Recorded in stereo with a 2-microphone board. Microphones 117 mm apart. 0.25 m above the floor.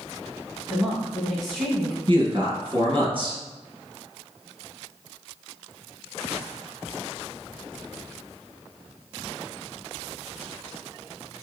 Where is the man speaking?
45° right (ahead or behind), 2 m.